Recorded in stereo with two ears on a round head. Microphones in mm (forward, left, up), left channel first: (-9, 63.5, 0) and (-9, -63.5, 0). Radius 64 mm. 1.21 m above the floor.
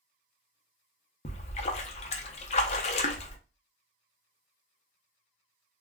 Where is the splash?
45° left (ahead or behind), 0.5 m.